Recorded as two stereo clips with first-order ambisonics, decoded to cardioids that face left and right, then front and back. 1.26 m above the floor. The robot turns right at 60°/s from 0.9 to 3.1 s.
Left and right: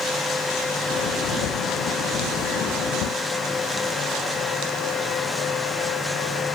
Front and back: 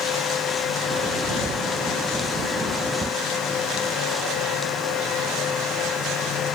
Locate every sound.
Only background noise.